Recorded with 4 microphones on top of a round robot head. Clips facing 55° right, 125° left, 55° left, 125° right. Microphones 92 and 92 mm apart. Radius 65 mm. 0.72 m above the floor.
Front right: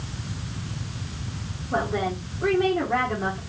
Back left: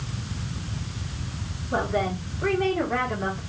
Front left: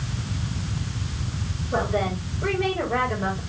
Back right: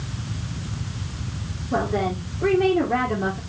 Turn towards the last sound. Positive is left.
turn(degrees=-125)